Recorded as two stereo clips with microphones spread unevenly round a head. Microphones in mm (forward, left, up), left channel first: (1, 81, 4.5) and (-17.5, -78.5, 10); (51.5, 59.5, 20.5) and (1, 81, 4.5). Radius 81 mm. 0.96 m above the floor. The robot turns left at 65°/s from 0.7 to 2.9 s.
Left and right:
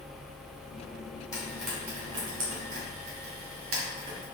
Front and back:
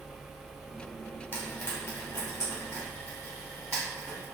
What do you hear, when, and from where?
1.3 s frying: 15° left, 1.4 m; by 4.2 s 85° right, 1.4 m